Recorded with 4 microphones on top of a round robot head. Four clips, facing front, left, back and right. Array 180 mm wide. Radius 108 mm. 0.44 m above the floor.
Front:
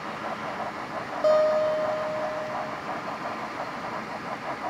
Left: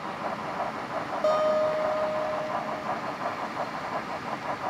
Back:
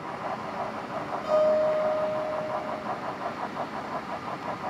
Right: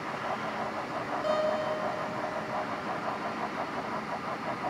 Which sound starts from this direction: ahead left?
A guitar, at 1.2 s.